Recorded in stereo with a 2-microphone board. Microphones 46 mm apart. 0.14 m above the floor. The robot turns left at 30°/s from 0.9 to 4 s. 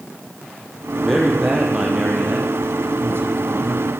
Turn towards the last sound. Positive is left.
turn(degrees=-80)